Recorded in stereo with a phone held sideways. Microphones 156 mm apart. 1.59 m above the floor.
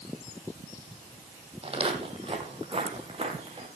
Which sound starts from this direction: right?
Footsteps, at 1.6 s.